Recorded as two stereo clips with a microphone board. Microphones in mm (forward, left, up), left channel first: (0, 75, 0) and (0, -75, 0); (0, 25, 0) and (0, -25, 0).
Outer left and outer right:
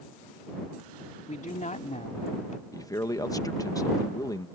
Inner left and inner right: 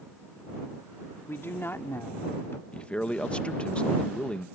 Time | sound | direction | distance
1.3 | a woman speaking | 55° left (ahead or behind) | ?
2.7 | a man speaking | 25° left (ahead or behind) | ?